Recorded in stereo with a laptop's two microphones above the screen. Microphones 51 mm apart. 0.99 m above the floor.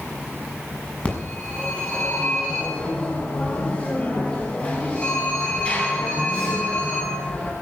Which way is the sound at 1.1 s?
25° left (ahead or behind).